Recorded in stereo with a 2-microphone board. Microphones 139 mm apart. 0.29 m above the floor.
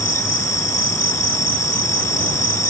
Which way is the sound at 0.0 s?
65° left (ahead or behind).